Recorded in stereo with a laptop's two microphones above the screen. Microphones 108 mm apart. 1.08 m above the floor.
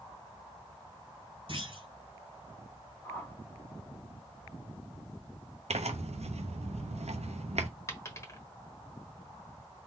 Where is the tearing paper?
85° right, 0.7 m.